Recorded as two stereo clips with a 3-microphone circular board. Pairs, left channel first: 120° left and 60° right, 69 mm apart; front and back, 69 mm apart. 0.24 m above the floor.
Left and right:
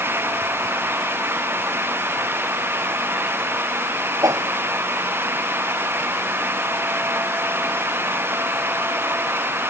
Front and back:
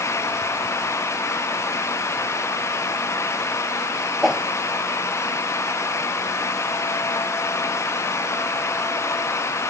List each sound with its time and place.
4.2 s a whoosh: 90° right